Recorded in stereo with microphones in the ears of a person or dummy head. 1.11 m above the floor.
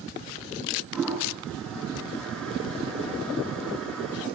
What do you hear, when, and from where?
0.9 s a toilet flushing: centre (ahead or behind), 9.5 m